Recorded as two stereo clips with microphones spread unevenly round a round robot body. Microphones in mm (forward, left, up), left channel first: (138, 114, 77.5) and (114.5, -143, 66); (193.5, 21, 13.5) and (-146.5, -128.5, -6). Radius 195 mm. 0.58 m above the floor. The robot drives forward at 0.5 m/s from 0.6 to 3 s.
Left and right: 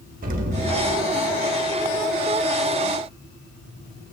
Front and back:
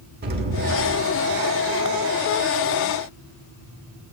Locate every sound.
0.2 s an explosion: 115° right, 1.4 m; by 1.4 s 135° right, 1.6 m